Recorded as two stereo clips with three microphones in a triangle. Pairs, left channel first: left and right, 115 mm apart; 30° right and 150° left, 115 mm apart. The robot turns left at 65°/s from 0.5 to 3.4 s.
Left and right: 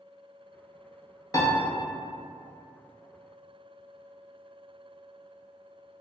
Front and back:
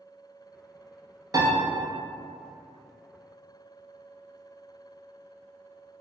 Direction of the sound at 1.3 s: 125° left.